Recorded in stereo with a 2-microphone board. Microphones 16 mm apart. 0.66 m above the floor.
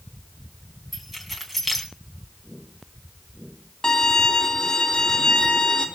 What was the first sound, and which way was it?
Keys jangling, 15° right (ahead or behind).